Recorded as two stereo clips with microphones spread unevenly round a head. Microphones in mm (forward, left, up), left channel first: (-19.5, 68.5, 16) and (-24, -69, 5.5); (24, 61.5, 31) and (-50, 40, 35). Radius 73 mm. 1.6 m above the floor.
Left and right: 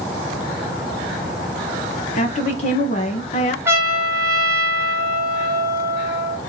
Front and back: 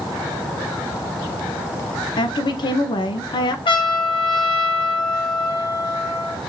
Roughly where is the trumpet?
Ahead.